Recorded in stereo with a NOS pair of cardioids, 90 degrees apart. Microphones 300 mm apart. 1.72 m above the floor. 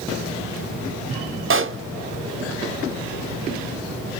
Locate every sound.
1.5 s a pop: 45° right, 0.6 m